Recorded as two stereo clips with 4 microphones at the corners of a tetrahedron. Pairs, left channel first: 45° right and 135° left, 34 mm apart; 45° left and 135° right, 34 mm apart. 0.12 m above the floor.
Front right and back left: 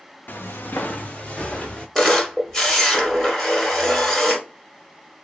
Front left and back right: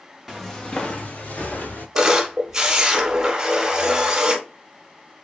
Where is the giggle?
I don't hear a giggle.